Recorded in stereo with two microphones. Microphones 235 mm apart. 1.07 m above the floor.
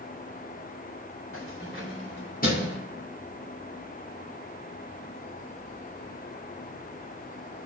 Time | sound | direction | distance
1.3 | keys jangling | 65° left (ahead or behind) | 2.5 m